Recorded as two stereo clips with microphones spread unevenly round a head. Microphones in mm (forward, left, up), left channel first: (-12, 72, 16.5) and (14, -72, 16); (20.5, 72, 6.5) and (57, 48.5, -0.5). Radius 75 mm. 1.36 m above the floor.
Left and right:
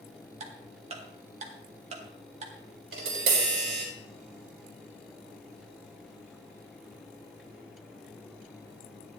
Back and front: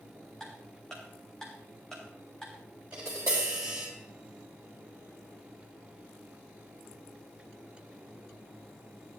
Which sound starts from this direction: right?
Tapping, at 2.9 s.